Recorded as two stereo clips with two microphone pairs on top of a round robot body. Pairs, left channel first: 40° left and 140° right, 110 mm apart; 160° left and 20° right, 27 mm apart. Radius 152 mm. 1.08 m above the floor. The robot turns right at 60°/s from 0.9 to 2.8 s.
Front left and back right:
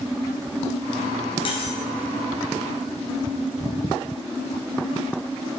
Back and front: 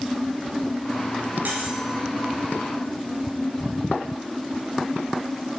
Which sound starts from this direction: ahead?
Cutlery clinking, at 1.4 s.